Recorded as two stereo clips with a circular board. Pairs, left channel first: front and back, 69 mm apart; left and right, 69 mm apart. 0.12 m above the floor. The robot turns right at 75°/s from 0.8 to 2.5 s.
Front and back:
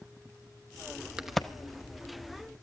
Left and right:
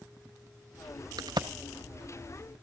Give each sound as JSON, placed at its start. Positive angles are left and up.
{"t": 1.2, "sound": "a crack", "azimuth_deg": -100, "distance_m": 0.9}